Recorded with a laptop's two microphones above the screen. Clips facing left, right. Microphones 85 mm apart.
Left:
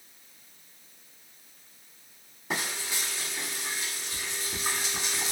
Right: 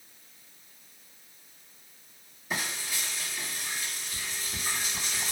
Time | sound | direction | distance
2.5 | frying | 80° left | 2.5 m